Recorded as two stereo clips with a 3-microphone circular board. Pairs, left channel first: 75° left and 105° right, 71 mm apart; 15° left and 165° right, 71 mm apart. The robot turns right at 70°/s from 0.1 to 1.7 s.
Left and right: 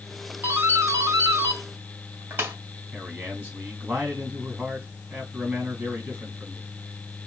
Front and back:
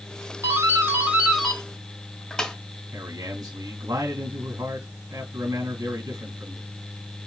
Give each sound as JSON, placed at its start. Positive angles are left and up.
{"t": 0.4, "sound": "a doorbell", "azimuth_deg": -150, "distance_m": 1.6}
{"t": 2.9, "sound": "a man speaking", "azimuth_deg": -170, "distance_m": 3.5}